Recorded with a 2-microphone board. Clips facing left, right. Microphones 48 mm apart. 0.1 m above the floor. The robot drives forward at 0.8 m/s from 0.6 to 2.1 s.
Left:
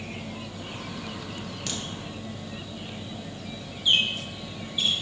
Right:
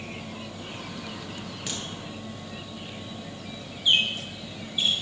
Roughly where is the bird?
Centre.